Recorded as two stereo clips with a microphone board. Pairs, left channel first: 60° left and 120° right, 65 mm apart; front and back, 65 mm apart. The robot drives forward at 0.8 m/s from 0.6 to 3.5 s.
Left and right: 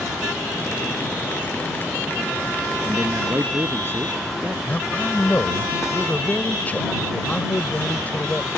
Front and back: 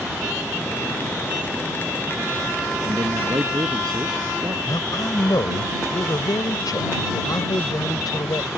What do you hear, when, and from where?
2.8 s a man speaking: 175° right
4.7 s a man speaking: 5° right